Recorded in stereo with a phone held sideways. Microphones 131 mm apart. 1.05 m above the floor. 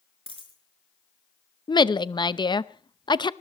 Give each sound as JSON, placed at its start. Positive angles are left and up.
{"t": 0.3, "sound": "a dropped coin", "side_deg": 45, "distance_m": 5.5}
{"t": 1.7, "sound": "a woman speaking", "side_deg": 35, "distance_m": 0.6}